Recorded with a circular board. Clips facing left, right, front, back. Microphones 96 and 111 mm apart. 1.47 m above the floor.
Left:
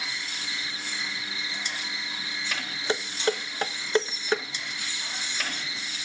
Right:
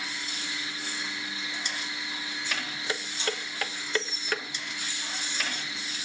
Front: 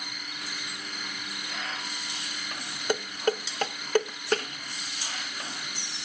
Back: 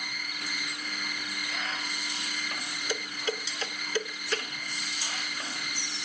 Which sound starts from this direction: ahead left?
Dishes clattering, at 2.9 s.